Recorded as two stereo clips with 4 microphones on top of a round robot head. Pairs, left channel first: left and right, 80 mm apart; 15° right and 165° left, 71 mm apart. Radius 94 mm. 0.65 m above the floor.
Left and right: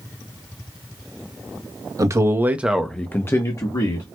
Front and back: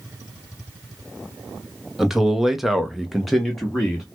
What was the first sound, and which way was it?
A man speaking, 110° right.